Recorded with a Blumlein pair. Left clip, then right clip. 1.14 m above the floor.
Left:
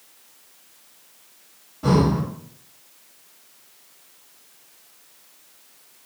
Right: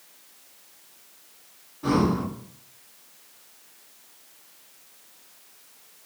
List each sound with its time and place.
1.8 s breathing: 20° left, 1.7 m